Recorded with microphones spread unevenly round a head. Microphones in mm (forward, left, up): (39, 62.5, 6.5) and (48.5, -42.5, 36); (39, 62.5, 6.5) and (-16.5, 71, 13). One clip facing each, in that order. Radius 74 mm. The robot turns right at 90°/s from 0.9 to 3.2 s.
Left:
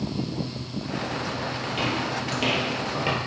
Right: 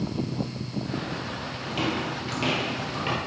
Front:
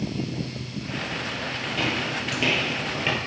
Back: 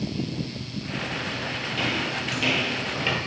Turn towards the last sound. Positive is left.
turn(degrees=85)